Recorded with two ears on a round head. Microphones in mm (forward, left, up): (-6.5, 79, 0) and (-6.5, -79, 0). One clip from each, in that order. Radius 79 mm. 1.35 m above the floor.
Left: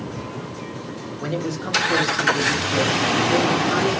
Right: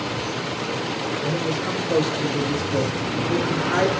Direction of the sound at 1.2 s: 45° left (ahead or behind).